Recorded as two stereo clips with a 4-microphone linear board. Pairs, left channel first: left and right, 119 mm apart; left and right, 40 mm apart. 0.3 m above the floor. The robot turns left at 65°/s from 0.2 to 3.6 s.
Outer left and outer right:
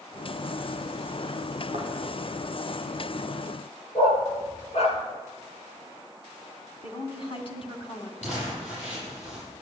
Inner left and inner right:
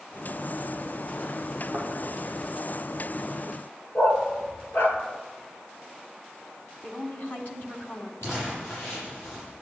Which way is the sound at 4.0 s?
60° left (ahead or behind).